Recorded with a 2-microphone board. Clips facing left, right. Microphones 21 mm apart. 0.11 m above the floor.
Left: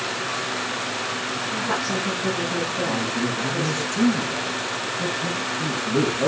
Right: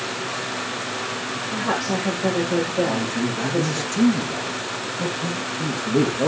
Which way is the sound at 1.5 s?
55° right (ahead or behind).